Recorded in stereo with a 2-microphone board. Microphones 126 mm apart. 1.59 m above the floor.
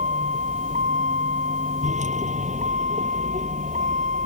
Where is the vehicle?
70° right (ahead or behind).